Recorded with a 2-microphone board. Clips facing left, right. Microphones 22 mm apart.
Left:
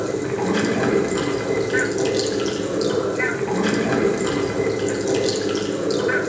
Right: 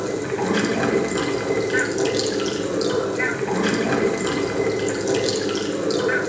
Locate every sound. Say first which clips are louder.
0.0 s running water: left 1 dB; 10° right (ahead or behind), 2 m